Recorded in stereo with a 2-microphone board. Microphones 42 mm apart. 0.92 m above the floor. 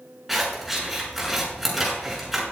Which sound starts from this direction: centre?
Scissors, at 0.3 s.